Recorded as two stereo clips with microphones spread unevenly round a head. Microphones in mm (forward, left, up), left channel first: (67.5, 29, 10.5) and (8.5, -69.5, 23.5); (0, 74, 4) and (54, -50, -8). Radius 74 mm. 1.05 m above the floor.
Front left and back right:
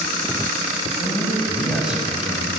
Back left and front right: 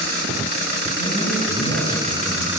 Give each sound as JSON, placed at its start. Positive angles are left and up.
{"t": 1.0, "sound": "a man speaking", "azimuth_deg": -40, "distance_m": 7.5}